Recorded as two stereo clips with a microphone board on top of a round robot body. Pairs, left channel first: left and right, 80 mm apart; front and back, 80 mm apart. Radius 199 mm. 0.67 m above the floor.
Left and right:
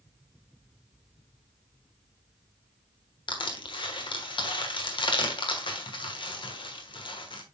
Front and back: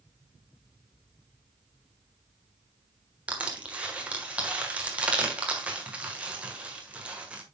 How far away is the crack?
No crack in this recording.